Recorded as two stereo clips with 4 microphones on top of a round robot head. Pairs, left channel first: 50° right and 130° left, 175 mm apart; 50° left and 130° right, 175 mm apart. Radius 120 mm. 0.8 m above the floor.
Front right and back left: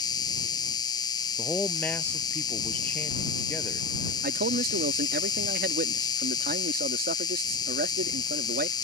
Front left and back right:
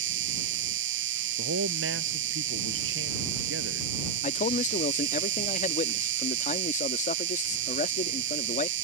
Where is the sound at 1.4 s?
130° right.